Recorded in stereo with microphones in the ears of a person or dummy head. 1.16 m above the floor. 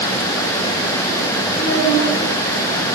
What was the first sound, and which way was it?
A child speaking, 55° left (ahead or behind).